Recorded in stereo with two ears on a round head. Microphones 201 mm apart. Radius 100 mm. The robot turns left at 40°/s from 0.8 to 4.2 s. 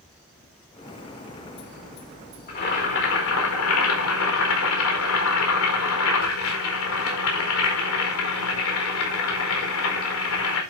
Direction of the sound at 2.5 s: 140° left.